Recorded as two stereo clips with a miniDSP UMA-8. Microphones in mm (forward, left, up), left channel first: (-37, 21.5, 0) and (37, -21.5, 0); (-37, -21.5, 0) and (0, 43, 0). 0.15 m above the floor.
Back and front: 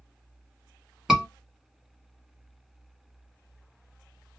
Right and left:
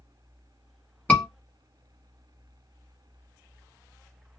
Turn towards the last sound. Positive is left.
turn(degrees=-105)